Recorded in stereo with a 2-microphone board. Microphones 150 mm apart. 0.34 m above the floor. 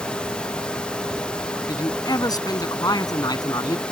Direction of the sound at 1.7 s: 25° left (ahead or behind).